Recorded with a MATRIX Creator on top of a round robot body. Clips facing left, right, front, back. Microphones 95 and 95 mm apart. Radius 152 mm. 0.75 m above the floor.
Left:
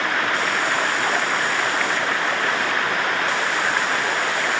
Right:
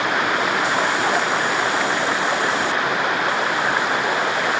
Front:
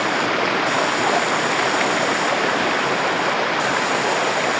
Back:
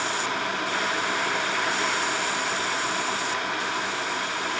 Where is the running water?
15° right.